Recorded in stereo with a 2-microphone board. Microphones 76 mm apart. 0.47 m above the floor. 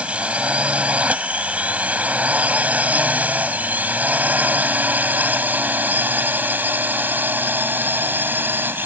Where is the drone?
15° right (ahead or behind); by 8.9 s 25° right (ahead or behind).